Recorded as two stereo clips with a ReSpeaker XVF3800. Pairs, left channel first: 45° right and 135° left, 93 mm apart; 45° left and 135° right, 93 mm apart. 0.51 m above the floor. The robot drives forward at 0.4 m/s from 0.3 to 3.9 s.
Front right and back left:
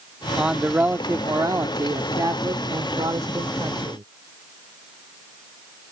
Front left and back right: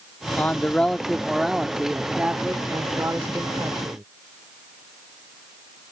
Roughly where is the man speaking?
Ahead left.